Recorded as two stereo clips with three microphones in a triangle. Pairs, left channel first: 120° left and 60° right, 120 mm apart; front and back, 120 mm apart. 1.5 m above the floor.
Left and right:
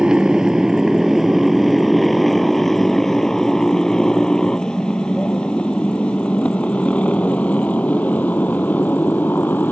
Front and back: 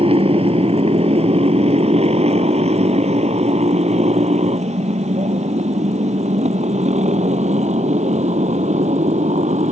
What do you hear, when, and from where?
0.0 s a motorcycle: 145° right; by 9.7 s 165° right